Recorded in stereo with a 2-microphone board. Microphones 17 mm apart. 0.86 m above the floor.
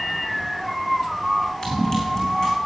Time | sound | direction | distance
1.6 | running footsteps | 50° left (ahead or behind) | 3.5 m